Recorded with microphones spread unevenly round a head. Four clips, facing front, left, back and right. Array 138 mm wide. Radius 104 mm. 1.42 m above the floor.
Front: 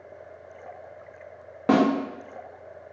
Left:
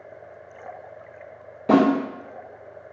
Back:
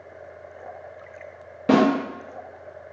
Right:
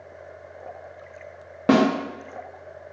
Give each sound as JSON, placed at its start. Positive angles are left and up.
{"t": 1.7, "sound": "a snare drum", "azimuth_deg": -70, "distance_m": 1.1}